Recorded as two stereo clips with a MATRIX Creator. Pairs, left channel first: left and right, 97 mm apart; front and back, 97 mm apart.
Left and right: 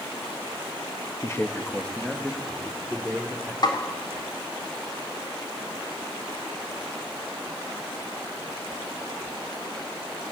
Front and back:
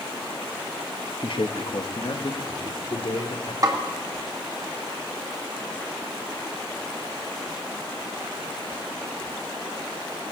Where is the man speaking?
30° left, 1.5 m; by 3.5 s 10° right, 3.5 m.